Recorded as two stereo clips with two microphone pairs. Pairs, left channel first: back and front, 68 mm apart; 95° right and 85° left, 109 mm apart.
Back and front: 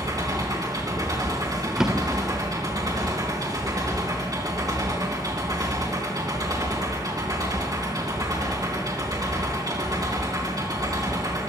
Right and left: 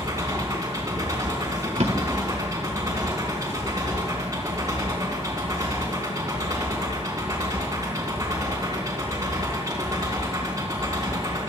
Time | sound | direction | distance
0.0 | an engine running | 25° left | 3.5 m
1.8 | a drawer | 85° left | 1.8 m